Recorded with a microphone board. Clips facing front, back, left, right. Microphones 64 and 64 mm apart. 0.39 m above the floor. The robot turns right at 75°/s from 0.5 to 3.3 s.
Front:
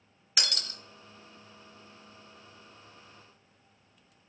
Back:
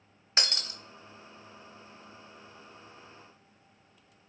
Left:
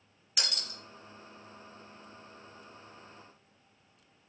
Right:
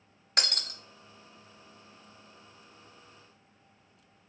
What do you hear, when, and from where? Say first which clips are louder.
0.4 s breaking glass: back 1 dB, right 4 dB; 125° right, 0.5 m; by 0.8 s 105° right, 0.5 m